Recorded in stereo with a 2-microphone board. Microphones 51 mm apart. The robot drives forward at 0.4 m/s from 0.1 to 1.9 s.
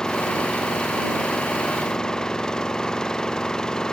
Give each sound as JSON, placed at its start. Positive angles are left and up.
{"t": 0.0, "sound": "an engine running", "side_deg": 15}